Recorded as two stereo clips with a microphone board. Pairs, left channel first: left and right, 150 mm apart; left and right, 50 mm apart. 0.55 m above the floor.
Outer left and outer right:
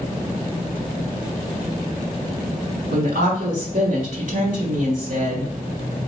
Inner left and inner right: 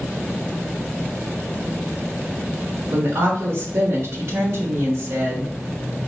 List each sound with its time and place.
2.9 s a woman speaking: 65° right (ahead or behind), 1.4 m